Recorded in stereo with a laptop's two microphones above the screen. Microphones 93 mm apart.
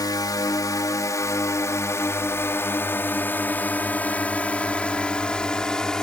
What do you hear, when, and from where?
0.0 s a drone: 45° left (ahead or behind); by 6.0 s 5° left (ahead or behind)